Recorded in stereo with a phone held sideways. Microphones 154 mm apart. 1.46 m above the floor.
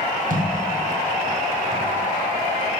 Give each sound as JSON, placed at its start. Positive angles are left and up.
{"t": 0.3, "sound": "a thud", "side_deg": -65, "distance_m": 3.0}